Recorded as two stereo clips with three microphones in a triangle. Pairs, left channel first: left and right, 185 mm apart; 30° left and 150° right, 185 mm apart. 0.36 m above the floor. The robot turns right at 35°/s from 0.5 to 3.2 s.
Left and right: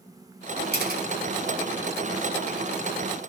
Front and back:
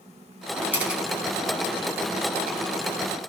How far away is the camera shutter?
About 2 m.